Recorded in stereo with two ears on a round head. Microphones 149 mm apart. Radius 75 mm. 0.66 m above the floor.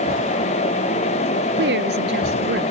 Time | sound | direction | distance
1.6 | a woman speaking | 75° right (ahead or behind) | ?